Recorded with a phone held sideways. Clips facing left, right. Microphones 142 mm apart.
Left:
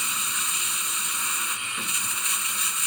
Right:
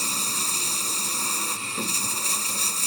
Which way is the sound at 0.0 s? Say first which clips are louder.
Right 3 dB; 35° right (ahead or behind).